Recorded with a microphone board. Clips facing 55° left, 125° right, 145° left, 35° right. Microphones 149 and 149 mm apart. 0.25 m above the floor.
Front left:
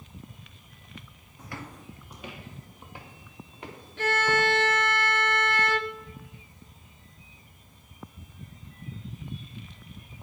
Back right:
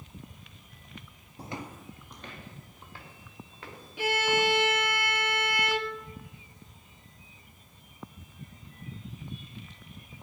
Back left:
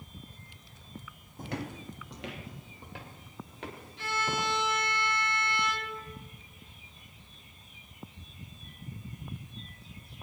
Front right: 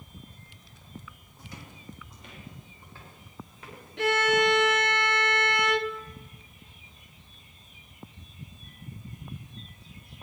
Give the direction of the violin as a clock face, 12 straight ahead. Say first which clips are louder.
Front left 1 dB, front right 10 dB; 1 o'clock.